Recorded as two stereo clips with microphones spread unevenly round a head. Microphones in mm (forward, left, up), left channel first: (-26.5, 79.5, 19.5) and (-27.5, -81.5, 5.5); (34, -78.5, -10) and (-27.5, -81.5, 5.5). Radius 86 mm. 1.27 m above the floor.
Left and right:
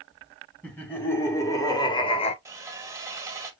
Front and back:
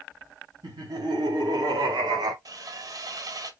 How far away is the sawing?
About 1.3 m.